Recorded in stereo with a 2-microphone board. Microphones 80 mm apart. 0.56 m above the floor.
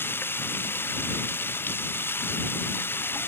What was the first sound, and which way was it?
Running water, 30° left (ahead or behind).